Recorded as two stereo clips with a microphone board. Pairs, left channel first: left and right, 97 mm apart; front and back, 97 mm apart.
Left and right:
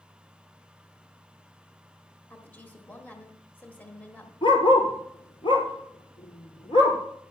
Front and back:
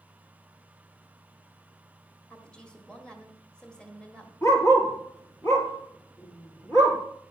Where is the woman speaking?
60° left, 1.2 m.